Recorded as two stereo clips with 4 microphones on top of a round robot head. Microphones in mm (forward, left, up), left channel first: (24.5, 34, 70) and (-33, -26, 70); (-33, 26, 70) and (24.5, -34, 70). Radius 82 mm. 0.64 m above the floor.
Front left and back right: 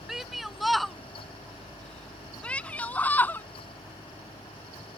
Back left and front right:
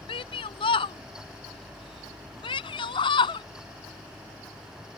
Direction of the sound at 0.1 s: 140° left.